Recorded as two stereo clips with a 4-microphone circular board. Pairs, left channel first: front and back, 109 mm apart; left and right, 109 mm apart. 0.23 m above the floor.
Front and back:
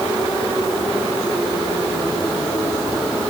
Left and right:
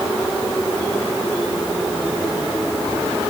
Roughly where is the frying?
No frying in this recording.